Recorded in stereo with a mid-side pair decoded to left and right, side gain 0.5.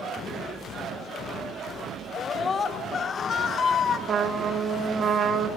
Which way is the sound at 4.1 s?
45° right.